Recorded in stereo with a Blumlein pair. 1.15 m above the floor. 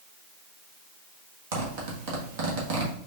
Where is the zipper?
50° right, 1.3 m.